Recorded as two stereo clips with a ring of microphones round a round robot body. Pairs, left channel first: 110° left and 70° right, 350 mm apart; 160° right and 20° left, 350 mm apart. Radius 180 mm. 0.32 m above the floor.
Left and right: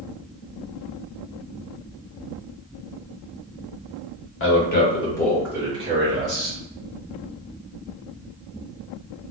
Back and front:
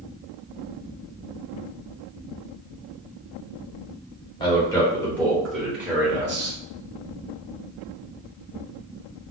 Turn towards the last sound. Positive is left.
turn(degrees=-50)